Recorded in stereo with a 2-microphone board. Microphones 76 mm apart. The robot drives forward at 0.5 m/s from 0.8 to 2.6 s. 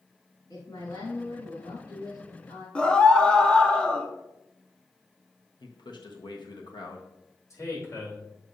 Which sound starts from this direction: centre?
A scream, at 2.8 s.